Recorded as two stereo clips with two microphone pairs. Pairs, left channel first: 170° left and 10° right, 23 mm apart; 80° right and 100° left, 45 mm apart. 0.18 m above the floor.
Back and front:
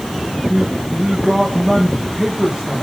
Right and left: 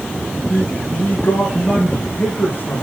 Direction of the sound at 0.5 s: 55° right.